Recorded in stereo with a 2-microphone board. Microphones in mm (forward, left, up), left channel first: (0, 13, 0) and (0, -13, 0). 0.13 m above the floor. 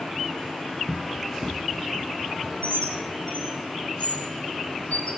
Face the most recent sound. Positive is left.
turn(degrees=60)  # may be behind; listen again after turning